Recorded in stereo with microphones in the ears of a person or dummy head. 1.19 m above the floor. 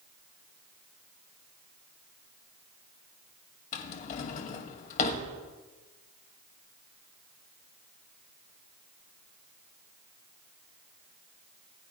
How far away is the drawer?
About 1.8 m.